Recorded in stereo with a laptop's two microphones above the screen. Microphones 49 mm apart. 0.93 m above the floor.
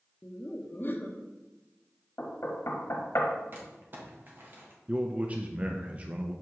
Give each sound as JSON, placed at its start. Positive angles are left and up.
{"t": 0.2, "sound": "laughter", "side_deg": 40, "distance_m": 0.7}
{"t": 2.2, "sound": "knocking", "side_deg": 65, "distance_m": 1.0}
{"t": 3.5, "sound": "crumpling", "side_deg": -45, "distance_m": 1.4}
{"t": 4.9, "sound": "a man speaking", "side_deg": -30, "distance_m": 0.5}